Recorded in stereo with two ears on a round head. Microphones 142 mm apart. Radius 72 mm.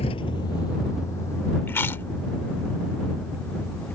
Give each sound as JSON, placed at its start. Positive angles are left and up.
{"t": 0.0, "sound": "a vehicle", "side_deg": 35}
{"t": 1.7, "sound": "chewing", "side_deg": 15}